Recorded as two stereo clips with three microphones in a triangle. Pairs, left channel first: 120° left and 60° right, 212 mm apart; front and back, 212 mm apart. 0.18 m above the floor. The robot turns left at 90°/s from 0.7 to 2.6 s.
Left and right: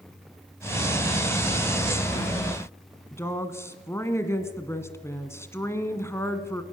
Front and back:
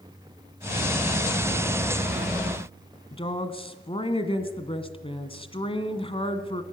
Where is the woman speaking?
50° left, 1.6 m.